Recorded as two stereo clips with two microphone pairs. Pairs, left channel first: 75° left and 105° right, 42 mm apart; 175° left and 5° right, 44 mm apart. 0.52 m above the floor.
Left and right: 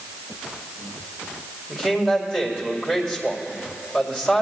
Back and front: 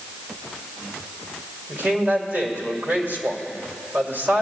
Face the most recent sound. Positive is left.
turn(degrees=-35)